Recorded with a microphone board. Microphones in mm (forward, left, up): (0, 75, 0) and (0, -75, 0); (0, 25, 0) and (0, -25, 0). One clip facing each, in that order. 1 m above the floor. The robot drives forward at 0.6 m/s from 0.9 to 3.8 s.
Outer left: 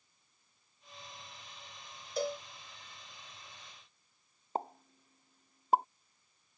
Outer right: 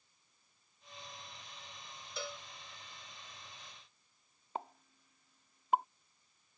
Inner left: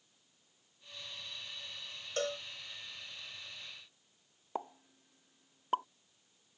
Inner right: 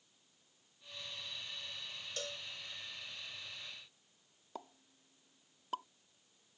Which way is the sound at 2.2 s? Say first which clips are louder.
Outer left 10 dB, inner left 10 dB; 45° left (ahead or behind).